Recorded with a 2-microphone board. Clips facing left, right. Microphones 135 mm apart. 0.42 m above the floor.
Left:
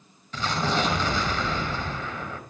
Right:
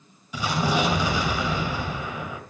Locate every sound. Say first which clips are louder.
0.3 s an explosion: right 2 dB; 10° right (ahead or behind), 2.5 m